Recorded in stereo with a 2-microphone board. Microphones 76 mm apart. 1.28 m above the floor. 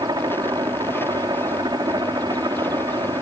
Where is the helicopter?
60° right (ahead or behind).